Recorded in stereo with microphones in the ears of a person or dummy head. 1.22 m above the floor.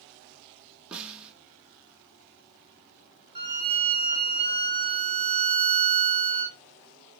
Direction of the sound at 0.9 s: 10° right (ahead or behind).